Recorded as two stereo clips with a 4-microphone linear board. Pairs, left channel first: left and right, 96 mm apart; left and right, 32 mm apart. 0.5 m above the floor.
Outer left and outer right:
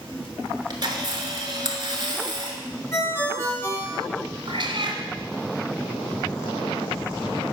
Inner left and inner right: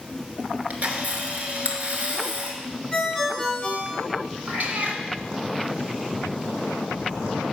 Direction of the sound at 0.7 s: 50° right (ahead or behind).